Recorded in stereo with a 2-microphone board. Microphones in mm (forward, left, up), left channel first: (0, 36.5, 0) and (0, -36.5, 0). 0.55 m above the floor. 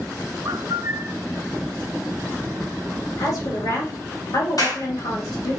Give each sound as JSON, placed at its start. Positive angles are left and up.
{"t": 0.5, "sound": "a bird", "side_deg": -60, "distance_m": 0.6}
{"t": 3.2, "sound": "a woman speaking", "side_deg": 70, "distance_m": 3.0}
{"t": 4.6, "sound": "a clap", "side_deg": 65, "distance_m": 2.0}